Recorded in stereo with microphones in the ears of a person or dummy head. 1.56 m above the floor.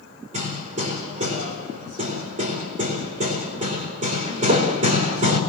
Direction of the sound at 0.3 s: 35° right (ahead or behind).